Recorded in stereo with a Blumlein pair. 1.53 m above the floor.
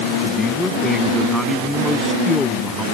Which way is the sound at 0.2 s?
10° left.